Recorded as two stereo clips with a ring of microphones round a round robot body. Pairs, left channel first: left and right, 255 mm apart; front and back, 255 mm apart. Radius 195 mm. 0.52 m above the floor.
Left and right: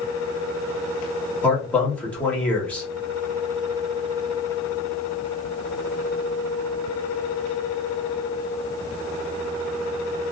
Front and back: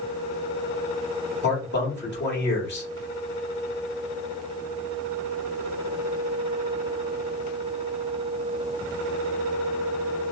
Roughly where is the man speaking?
Ahead.